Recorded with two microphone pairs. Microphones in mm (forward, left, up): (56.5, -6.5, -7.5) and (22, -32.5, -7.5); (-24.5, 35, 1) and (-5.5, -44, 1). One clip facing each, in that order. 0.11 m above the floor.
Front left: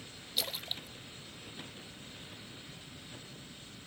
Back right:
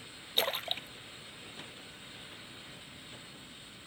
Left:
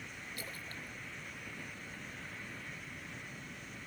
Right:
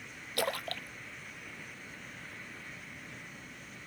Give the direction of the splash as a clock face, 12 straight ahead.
3 o'clock.